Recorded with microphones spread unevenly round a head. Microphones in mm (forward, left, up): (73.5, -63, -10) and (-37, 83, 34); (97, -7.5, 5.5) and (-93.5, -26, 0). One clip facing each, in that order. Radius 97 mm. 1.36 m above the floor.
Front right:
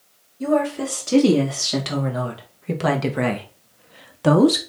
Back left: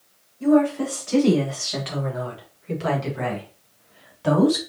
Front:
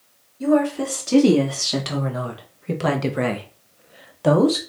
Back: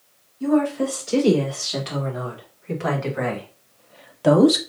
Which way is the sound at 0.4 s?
15° right.